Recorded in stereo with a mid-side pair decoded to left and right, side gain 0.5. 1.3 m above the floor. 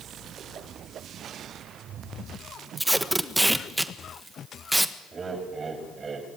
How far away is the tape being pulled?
About 1.5 m.